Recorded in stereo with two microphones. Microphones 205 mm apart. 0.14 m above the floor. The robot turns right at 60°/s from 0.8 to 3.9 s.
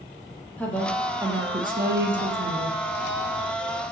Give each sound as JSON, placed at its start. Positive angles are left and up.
{"t": 0.6, "sound": "a woman speaking", "azimuth_deg": 175, "distance_m": 3.5}